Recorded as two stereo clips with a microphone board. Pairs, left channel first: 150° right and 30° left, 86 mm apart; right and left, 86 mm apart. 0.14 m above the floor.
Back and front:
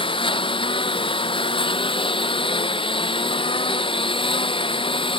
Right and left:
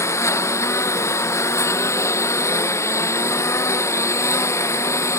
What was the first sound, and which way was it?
A lawn mower, 145° right.